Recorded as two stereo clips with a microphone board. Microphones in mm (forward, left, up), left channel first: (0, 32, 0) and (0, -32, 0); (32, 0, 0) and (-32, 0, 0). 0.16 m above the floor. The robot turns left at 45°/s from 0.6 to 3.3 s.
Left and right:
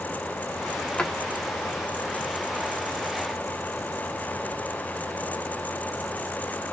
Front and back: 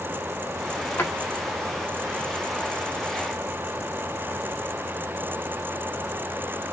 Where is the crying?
I don't hear crying.